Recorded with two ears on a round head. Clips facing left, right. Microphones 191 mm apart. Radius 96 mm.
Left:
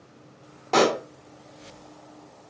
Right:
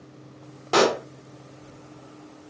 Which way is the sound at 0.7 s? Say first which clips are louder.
Even; 10° right (ahead or behind).